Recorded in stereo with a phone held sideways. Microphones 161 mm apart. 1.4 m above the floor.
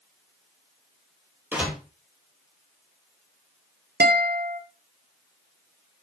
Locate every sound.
1.5 s a door slam: 10° right (ahead or behind), 1.7 m
4.0 s a guitar: 85° right, 0.8 m